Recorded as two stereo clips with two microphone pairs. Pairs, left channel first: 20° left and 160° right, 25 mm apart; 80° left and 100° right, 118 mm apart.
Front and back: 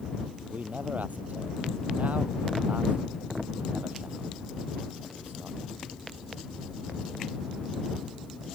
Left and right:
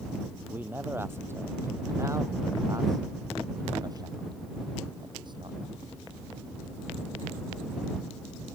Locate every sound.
0.5 s a man speaking: 175° right; by 5.7 s 150° right